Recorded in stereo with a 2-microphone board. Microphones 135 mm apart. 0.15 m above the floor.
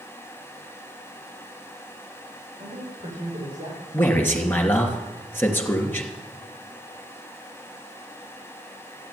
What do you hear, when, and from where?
2.6 s a man speaking: 65° right (ahead or behind), 7.5 m; by 3.8 s 50° right (ahead or behind), 7.5 m
3.9 s a man speaking: 15° left (ahead or behind), 3 m